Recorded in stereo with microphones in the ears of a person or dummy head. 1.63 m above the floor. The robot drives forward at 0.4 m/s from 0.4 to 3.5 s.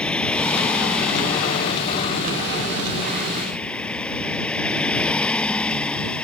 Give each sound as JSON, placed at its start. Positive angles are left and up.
{"t": 0.0, "sound": "a vehicle", "side_deg": 0}